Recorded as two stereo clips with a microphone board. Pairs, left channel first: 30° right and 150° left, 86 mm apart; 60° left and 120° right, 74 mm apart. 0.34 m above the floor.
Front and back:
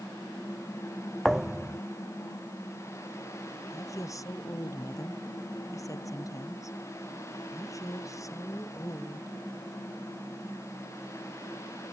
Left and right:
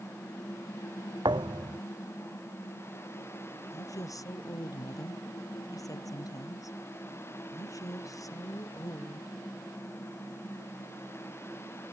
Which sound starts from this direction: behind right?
A thud, at 1.2 s.